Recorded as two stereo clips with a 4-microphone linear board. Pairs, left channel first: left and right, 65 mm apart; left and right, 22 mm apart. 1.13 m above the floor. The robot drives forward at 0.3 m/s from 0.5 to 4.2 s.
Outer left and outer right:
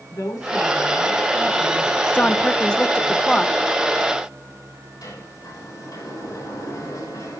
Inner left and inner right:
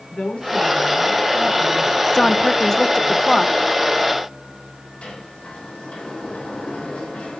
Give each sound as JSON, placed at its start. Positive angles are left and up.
{"t": 0.1, "sound": "a woman speaking", "side_deg": 85, "distance_m": 9.5}
{"t": 2.1, "sound": "a woman speaking", "side_deg": 20, "distance_m": 0.6}
{"t": 5.0, "sound": "a sliding door", "side_deg": 85, "distance_m": 8.5}